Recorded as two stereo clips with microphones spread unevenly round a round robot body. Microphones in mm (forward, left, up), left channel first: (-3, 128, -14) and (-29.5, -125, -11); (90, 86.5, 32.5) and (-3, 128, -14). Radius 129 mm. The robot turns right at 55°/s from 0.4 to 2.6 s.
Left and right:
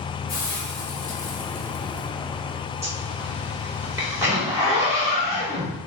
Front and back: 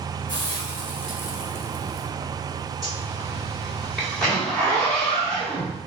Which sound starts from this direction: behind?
A zipper, at 2.8 s.